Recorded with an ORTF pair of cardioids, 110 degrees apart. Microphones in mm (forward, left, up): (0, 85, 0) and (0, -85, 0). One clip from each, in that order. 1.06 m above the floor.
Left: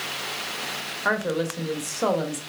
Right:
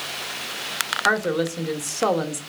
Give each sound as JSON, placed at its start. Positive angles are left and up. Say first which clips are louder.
{"t": 1.1, "sound": "a woman speaking", "louder": "right 2 dB", "azimuth_deg": -15, "distance_m": 0.9}